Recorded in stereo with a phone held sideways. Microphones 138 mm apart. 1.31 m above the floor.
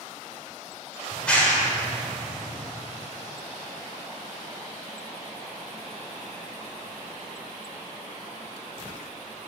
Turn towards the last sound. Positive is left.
turn(degrees=10)  # may be behind; listen again after turning